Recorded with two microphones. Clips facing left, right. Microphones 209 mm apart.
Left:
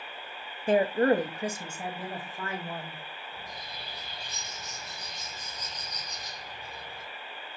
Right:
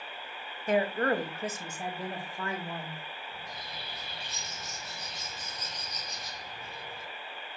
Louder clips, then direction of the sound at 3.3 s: Even; 75° right (ahead or behind).